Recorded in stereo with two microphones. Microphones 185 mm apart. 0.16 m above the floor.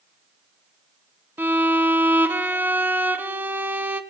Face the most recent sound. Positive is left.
turn(degrees=-10)  # may be behind; listen again after turning